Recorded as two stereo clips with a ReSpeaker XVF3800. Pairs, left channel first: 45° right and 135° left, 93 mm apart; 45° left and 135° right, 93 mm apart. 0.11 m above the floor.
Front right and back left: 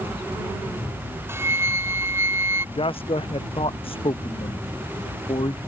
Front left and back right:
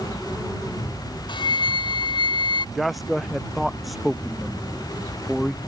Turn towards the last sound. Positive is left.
turn(degrees=-45)